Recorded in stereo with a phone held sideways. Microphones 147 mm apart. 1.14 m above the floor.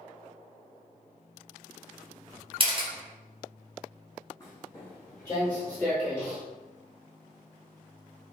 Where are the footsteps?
25° left (ahead or behind), 1.7 m; by 6.4 s centre (ahead or behind), 1.1 m.